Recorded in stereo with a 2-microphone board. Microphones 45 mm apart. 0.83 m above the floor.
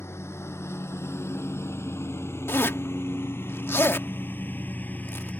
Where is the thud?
No thud in this recording.